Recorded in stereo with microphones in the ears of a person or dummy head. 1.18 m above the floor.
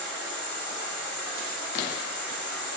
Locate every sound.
0.0 s an insect: 45° left (ahead or behind), 1.6 m